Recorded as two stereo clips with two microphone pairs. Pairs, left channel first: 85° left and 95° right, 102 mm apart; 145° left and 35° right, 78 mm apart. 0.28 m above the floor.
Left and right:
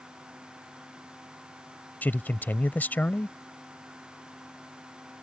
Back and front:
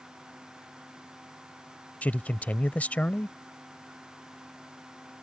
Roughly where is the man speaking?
Behind left.